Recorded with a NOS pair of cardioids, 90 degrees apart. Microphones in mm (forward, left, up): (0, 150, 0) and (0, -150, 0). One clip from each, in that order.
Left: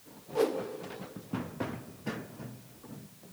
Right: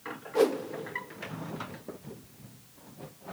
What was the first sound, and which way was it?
A whoosh, 25° right.